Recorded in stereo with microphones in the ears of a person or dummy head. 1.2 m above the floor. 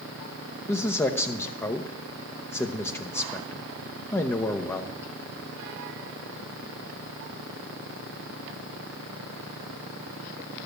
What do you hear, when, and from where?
0.7 s a man speaking: 20° left (ahead or behind), 0.7 m